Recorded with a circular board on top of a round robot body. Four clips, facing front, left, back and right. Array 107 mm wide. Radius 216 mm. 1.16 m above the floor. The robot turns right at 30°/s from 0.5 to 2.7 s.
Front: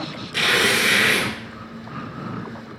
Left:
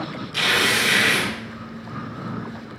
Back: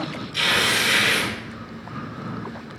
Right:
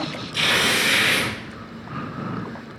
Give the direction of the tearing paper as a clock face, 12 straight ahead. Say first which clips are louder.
Left 1 dB, front 3 dB; 11 o'clock.